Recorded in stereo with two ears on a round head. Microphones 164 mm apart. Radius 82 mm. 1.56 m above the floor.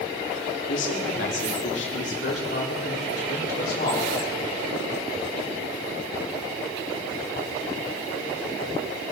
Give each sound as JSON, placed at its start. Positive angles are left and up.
{"t": 0.7, "sound": "a man speaking", "side_deg": 75, "distance_m": 3.0}